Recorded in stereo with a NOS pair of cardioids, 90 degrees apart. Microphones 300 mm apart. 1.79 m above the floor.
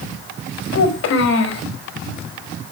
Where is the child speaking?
65° left, 4.5 m.